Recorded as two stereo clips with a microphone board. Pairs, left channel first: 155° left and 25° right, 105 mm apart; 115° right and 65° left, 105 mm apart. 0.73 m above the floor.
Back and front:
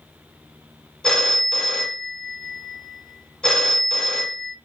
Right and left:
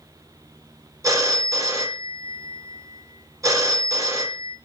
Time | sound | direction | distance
1.0 | a phone ringing | 80° left | 0.5 m